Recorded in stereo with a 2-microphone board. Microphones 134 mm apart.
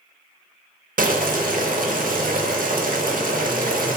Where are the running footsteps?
I don't hear running footsteps.